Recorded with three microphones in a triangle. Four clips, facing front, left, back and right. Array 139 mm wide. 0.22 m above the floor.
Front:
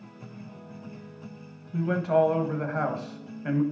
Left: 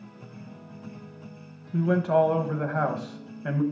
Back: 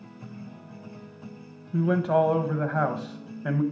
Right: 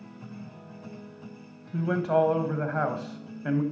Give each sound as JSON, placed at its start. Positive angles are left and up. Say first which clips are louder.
{"t": 1.7, "sound": "a man speaking", "louder": "left 2 dB, back 1 dB", "azimuth_deg": 170, "distance_m": 0.9}